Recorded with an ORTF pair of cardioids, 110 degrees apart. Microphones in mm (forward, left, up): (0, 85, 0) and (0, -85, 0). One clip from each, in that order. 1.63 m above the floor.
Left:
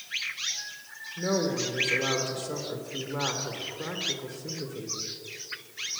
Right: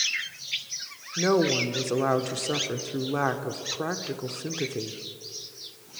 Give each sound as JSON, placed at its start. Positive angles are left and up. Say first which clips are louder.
{"t": 1.2, "sound": "a woman speaking", "louder": "right 5 dB", "azimuth_deg": -50, "distance_m": 1.2}